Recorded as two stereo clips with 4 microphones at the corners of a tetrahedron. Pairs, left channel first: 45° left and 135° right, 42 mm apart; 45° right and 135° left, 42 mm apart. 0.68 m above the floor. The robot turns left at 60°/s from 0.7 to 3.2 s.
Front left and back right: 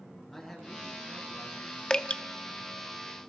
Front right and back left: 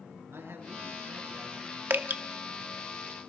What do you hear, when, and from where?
0.3 s a man speaking: 125° left, 9.5 m; by 1.8 s 60° left, 9.5 m
1.9 s dripping: 110° left, 0.8 m; by 2.2 s 95° left, 0.8 m